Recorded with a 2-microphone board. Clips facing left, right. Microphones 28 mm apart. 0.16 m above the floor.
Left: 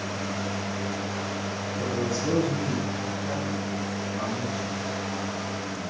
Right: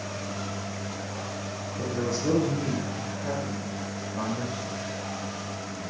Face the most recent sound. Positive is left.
turn(degrees=-70)  # may be behind; listen again after turning